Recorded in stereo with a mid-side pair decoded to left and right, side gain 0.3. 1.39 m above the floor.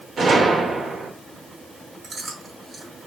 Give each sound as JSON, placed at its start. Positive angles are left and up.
{"t": 0.2, "sound": "a gunshot", "azimuth_deg": -65, "distance_m": 2.5}
{"t": 2.0, "sound": "chewing", "azimuth_deg": -65, "distance_m": 4.0}